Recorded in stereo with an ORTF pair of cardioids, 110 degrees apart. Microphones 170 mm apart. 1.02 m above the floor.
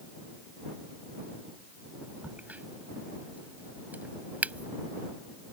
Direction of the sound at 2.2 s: 10° right.